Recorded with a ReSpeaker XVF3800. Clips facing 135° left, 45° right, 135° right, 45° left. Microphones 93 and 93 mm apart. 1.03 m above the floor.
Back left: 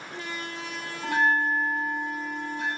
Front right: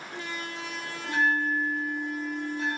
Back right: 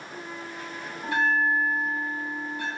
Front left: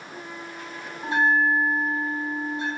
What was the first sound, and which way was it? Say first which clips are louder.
A bell: back left 2 dB, front left 3 dB; 105° left.